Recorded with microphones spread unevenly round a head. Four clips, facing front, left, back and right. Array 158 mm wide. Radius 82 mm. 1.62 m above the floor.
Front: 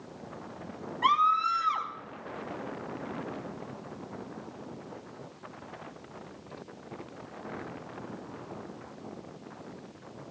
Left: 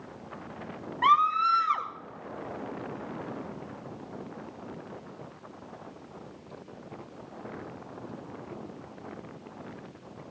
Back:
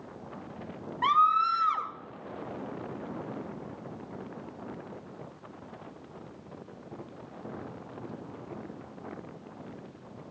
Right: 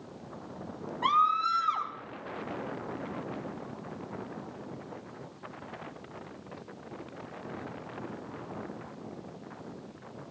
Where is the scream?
105° left, 1.4 m.